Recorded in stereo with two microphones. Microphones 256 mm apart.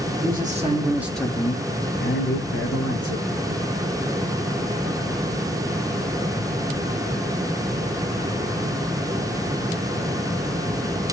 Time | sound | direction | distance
0.2 | a man speaking | 35° right (ahead or behind) | 0.9 m